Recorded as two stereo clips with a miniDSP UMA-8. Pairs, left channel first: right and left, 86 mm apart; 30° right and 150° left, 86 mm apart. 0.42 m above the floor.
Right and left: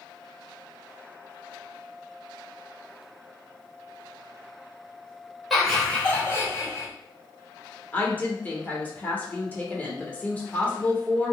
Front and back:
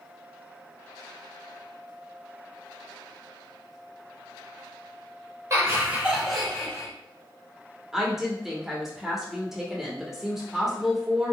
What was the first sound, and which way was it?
Laughter, straight behind.